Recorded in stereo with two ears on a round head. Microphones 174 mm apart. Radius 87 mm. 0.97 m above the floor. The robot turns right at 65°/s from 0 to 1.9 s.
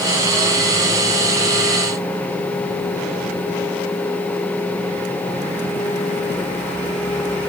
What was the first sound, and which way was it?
Only background noise.